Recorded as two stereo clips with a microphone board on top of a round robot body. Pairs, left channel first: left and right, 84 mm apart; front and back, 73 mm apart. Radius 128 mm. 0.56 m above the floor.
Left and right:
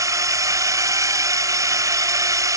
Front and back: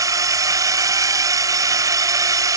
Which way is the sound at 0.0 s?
140° right.